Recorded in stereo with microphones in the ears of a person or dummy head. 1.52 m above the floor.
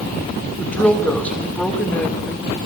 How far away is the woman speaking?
About 2.5 m.